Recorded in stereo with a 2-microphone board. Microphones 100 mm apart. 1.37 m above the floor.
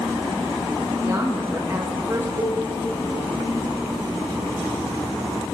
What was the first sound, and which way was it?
A woman speaking, 25° right (ahead or behind).